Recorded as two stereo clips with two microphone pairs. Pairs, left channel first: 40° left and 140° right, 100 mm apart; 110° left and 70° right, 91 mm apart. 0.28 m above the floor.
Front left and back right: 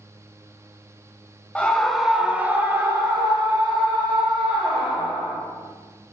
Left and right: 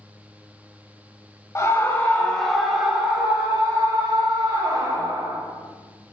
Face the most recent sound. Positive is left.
turn(degrees=-115)